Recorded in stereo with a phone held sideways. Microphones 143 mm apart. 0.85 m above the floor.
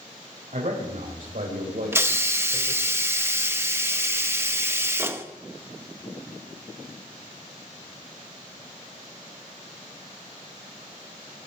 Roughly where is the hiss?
Centre.